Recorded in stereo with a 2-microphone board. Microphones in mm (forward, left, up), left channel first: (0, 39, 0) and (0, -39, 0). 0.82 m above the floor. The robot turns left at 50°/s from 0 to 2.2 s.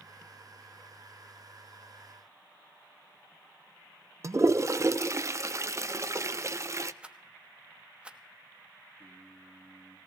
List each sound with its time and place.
4.2 s a toilet flushing: 40° right (ahead or behind), 0.5 m
7.0 s a rattle: 15° right (ahead or behind), 0.8 m
9.0 s singing: 25° right (ahead or behind), 9 m